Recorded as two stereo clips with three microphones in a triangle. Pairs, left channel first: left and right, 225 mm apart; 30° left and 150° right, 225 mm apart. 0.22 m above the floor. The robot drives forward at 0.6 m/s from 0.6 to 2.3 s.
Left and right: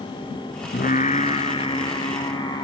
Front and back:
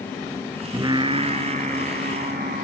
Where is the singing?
140° left, 0.7 m; by 2.7 s 160° left, 1.6 m.